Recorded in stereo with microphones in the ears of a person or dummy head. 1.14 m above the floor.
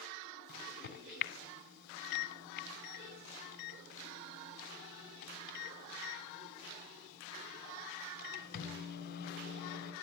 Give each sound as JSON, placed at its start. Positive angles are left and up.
{"t": 0.5, "sound": "a microwave", "side_deg": 55, "distance_m": 2.0}